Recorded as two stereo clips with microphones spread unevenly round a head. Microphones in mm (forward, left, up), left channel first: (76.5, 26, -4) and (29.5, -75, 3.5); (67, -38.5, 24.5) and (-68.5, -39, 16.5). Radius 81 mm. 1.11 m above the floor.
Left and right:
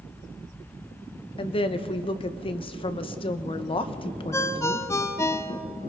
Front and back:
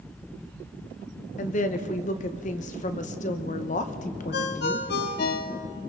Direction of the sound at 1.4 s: 35° left.